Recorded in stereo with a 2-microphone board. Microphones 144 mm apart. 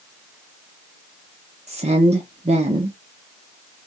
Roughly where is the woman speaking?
Right.